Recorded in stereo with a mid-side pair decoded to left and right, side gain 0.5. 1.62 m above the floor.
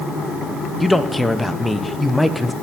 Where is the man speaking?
15° left, 1.2 m.